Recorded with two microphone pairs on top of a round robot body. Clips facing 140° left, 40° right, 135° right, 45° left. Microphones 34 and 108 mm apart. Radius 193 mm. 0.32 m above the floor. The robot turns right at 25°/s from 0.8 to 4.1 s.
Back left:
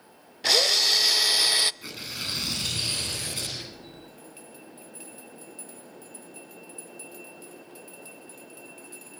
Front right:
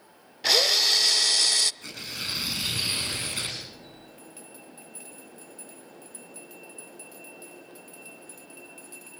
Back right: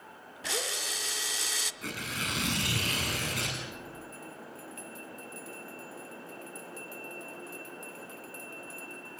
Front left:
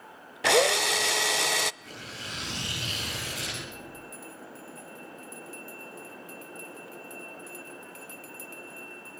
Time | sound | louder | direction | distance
0.4 | a drill | even, front left 14 dB | 45° left | 0.6 m
1.8 | tearing paper | even, back right 5 dB | 140° right | 9 m